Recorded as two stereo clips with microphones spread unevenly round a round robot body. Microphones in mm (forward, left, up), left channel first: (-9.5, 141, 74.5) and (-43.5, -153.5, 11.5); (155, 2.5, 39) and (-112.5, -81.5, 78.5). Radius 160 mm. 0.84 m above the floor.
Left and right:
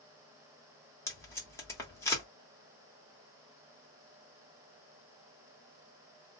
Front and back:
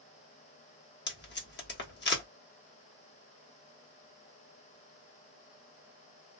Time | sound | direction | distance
1.1 | tape being pulled | 5° right | 1.2 m